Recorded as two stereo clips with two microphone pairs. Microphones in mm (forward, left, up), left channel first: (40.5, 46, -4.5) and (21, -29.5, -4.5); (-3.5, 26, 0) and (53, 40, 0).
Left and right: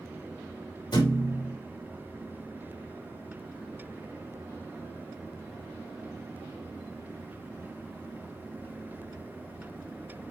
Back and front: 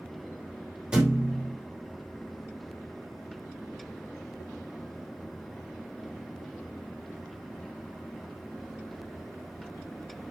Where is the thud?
90° left, 5.5 m.